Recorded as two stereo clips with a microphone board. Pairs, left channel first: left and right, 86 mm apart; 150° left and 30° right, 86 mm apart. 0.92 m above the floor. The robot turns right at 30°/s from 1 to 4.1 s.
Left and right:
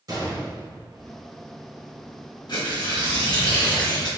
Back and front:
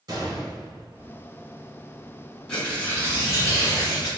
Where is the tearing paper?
70° left, 1.9 m; by 4.1 s 120° left, 1.9 m.